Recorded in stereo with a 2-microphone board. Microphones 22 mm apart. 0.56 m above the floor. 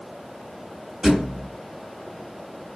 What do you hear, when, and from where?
1.0 s a thud: 35° right (ahead or behind), 1.3 m